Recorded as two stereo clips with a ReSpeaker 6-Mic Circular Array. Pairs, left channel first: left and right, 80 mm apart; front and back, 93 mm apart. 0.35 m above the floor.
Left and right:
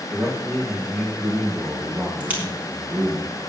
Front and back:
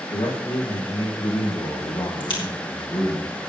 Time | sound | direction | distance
0.1 | a man speaking | 5° right | 7.5 m
2.2 | a crack | 25° right | 4 m